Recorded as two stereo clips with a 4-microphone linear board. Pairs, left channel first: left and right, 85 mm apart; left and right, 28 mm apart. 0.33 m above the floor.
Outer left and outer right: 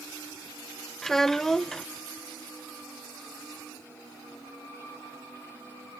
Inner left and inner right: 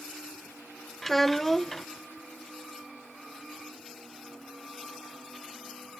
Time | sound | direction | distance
1.0 | a child speaking | 5° left (ahead or behind) | 0.5 m